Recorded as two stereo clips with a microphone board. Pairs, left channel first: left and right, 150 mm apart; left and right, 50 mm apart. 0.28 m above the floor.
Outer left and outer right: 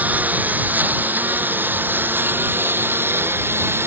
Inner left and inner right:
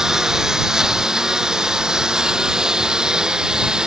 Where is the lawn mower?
10° right (ahead or behind); by 3.9 s 15° right (ahead or behind).